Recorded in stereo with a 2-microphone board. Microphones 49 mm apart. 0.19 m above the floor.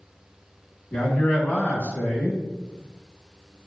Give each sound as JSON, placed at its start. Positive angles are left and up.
{"t": 0.9, "sound": "a man speaking", "side_deg": 35, "distance_m": 1.1}